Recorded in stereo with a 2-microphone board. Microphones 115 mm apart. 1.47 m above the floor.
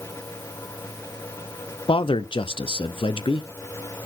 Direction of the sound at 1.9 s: 50° left (ahead or behind).